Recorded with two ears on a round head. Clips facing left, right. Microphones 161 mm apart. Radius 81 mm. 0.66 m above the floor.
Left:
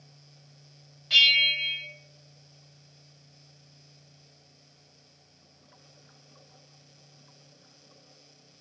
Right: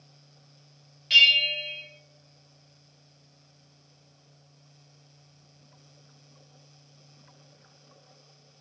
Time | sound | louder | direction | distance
1.1 | a bell | right 3 dB | 30° right (ahead or behind) | 0.8 m